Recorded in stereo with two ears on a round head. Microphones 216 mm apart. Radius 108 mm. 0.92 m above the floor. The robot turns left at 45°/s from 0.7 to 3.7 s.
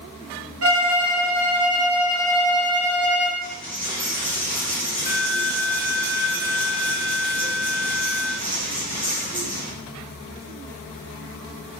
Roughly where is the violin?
Right.